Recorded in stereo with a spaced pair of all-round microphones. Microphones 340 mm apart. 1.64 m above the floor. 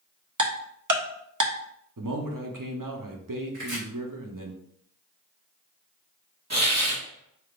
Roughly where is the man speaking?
Right.